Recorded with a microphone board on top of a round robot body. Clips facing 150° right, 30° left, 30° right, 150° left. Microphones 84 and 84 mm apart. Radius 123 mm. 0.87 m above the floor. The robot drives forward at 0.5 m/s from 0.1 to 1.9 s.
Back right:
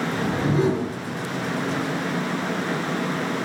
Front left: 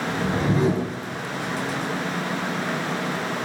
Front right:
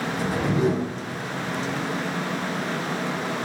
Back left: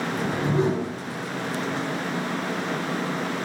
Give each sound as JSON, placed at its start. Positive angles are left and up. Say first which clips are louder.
{"t": 0.1, "sound": "a whoosh", "louder": "front left 2 dB, front right 1 dB", "azimuth_deg": 70, "distance_m": 1.2}